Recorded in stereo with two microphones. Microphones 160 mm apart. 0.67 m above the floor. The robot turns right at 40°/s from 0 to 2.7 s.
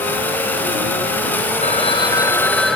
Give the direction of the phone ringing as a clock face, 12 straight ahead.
8 o'clock.